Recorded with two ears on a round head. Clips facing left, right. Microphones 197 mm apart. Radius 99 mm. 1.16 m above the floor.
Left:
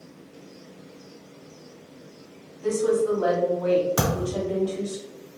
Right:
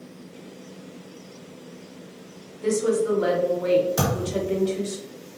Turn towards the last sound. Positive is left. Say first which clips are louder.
# even
turn(degrees=60)  # may be behind; listen again after turning